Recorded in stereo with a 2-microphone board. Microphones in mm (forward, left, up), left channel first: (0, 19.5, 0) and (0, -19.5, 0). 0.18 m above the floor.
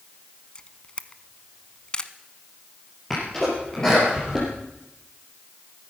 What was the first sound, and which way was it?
A camera shutter, 20° left (ahead or behind).